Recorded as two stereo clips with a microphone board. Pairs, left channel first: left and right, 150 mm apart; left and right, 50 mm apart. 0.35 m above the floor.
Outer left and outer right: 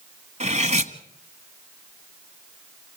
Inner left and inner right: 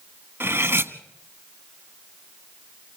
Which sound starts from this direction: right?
Cutlery clinking, at 0.4 s.